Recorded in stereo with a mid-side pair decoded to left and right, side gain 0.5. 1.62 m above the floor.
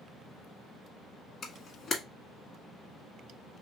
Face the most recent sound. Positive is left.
turn(degrees=45)